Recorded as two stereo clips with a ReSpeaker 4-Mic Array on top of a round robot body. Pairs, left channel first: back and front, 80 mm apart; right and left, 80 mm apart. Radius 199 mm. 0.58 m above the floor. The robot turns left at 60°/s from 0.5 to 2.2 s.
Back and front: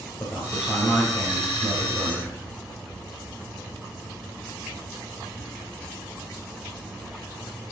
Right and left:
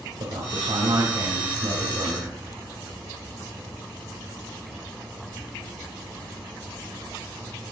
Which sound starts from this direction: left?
A man speaking, at 0.2 s.